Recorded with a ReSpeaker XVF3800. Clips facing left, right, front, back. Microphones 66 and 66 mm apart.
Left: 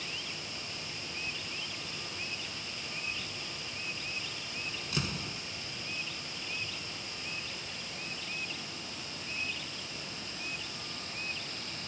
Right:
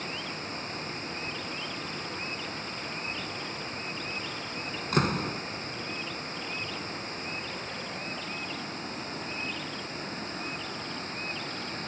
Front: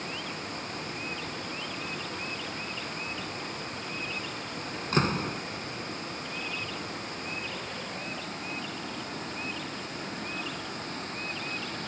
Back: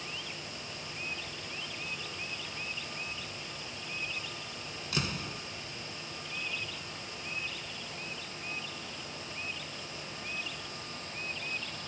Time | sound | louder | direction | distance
0.0 | running water | right 6 dB, front 6 dB | 40° right | ?
4.9 | a door slam | right 12 dB, front 9 dB | 50° right | ?